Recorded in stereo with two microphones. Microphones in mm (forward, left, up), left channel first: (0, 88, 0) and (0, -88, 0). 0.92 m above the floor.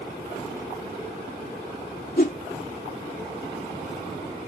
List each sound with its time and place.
2.2 s a whoosh: 55° left (ahead or behind)